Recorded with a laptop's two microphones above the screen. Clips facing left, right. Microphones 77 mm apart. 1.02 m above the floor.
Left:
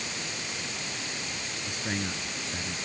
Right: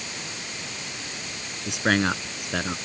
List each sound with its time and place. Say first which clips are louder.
1.7 s a man speaking: right 12 dB; 80° right